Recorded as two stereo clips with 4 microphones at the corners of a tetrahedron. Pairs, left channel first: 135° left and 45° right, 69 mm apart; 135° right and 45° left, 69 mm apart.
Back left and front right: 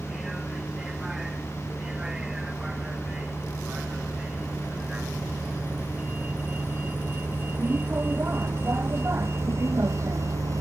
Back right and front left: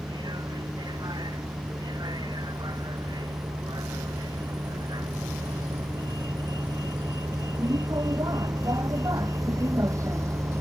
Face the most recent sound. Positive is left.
turn(degrees=-5)